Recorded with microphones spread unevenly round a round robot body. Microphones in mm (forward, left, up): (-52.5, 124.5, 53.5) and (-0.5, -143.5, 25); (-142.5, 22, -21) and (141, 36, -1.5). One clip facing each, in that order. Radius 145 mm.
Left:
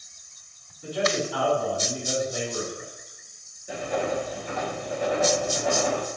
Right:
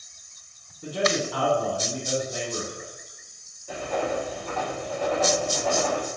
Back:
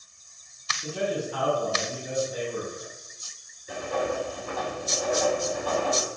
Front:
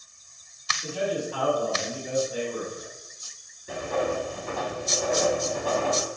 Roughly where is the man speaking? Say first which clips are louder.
Even, even; right.